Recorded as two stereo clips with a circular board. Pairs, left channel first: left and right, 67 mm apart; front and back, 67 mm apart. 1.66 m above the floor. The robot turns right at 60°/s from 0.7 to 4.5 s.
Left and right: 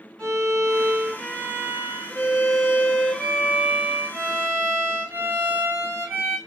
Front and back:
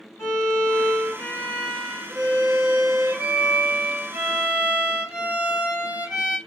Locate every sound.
0.2 s a violin: 15° left, 1.5 m; by 6.4 s 115° right, 1.5 m